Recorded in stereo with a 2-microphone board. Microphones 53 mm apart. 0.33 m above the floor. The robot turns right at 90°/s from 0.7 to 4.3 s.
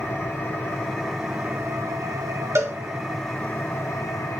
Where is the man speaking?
No man speaking in this recording.